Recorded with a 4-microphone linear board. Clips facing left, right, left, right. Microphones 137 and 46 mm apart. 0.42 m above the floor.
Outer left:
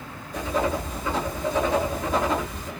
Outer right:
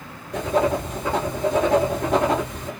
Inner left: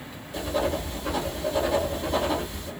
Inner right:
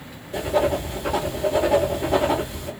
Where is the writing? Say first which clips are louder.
Outer right 5 dB, inner right 6 dB; 80° right, 1.6 m.